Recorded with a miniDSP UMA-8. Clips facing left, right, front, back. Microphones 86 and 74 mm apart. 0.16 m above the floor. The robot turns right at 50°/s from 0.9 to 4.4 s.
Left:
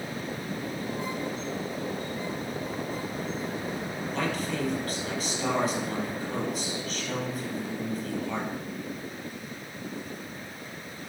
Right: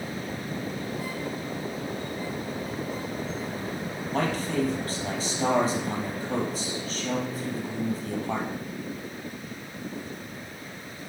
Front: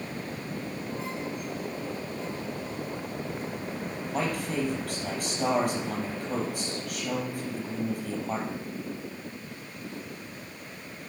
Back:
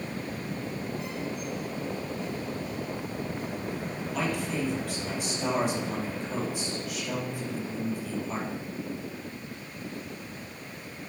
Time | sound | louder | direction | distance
4.1 | a man speaking | right 3 dB, front 1 dB | 55° right | 4.5 m